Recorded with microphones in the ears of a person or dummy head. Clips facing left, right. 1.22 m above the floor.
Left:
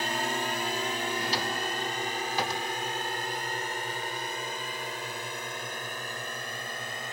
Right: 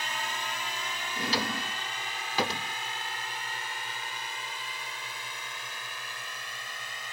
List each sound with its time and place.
0.0 s a drone: 35° left (ahead or behind); by 7.1 s 40° left (ahead or behind)
1.2 s a drawer: 70° right (ahead or behind)